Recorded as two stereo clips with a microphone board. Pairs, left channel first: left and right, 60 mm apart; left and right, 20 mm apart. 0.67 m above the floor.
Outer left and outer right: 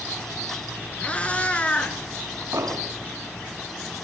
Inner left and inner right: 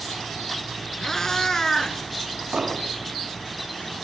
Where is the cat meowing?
20° left (ahead or behind), 1.4 m.